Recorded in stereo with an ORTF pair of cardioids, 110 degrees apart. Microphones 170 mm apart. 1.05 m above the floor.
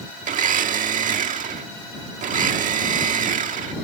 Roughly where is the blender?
Ahead right.